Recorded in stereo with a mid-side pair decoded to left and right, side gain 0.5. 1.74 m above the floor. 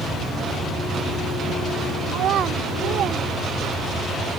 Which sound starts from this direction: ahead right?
A child speaking, at 2.1 s.